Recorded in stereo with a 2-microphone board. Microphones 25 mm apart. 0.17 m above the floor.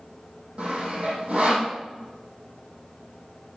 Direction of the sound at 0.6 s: 60° right (ahead or behind).